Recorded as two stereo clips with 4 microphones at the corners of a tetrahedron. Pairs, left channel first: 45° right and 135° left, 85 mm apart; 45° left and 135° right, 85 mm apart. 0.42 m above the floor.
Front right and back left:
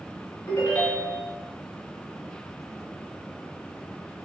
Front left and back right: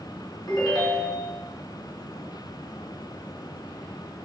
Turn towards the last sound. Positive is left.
turn(degrees=15)